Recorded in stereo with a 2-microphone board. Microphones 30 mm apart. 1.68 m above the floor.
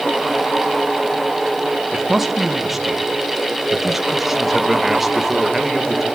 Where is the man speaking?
Centre (ahead or behind), 2 m.